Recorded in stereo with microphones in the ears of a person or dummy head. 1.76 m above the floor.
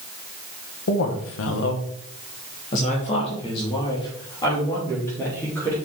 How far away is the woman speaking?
About 1.6 m.